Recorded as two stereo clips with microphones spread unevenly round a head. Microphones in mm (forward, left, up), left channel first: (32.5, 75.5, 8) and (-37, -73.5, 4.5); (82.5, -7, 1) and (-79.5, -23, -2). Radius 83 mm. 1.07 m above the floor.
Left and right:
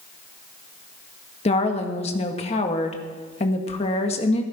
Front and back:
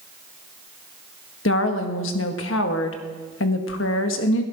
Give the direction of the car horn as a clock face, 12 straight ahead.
I don't hear a car horn.